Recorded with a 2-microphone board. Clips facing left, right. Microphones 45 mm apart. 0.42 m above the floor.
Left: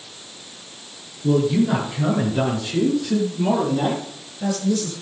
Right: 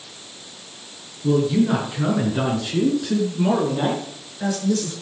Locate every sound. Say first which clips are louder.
1.2 s a man speaking: even; 15° right (ahead or behind), 5.5 m; by 4.9 s 60° right (ahead or behind), 7.5 m